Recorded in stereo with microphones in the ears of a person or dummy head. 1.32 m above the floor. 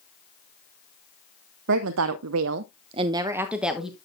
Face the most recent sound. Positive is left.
turn(degrees=5)  # may be behind; listen again after turning